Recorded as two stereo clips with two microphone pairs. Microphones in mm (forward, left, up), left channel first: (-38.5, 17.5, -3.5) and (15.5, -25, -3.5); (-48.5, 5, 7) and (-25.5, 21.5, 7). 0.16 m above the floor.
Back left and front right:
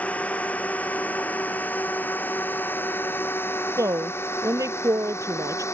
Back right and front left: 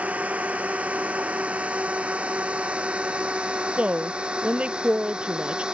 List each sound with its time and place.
0.0 s a drone: 70° left; by 5.7 s 95° left
3.8 s a woman speaking: 5° right